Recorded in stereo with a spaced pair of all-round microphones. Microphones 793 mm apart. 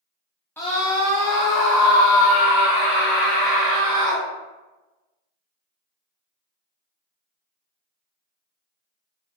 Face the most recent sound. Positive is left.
turn(degrees=65)  # may be behind; listen again after turning